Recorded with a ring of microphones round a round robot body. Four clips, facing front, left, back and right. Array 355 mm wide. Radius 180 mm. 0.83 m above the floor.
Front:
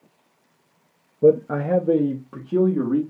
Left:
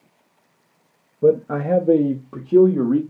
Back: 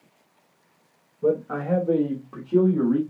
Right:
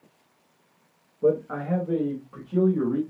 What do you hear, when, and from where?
1.2 s a man speaking: 35° left, 0.7 m; by 3.0 s 80° left, 1.4 m